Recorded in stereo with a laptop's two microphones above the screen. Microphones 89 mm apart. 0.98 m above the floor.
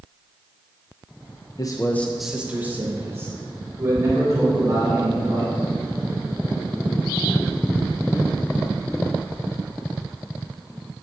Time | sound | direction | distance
1.6 | a man speaking | 45° left (ahead or behind) | 0.6 m